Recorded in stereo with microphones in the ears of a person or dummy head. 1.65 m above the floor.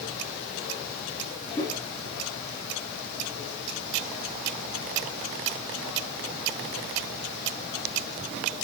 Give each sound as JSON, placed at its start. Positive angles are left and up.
{"t": 1.6, "sound": "a whoosh", "side_deg": 20, "distance_m": 3.0}